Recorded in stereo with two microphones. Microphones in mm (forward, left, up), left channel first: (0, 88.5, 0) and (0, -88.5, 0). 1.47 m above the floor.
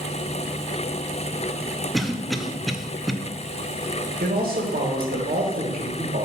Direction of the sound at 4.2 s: 75° right (ahead or behind).